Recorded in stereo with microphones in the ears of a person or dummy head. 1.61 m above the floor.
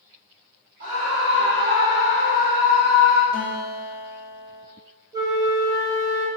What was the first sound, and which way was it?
A scream, 45° right (ahead or behind).